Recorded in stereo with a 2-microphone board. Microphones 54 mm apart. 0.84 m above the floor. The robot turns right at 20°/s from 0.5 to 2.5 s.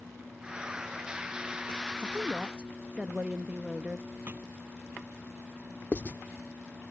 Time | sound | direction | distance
2.0 | a woman speaking | 30° right (ahead or behind) | ?
4.3 | a thud | 35° right (ahead or behind) | ?
5.9 | writing | 35° left (ahead or behind) | ?